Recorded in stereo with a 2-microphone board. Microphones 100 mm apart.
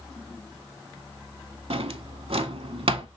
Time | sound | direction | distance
1.7 | a drawer | 75° right (ahead or behind) | 0.6 m